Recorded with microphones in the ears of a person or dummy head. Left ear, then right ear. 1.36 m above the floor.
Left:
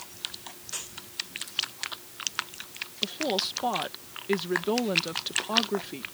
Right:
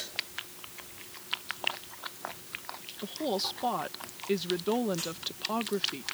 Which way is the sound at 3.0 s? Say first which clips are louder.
Left 4 dB; centre (ahead or behind).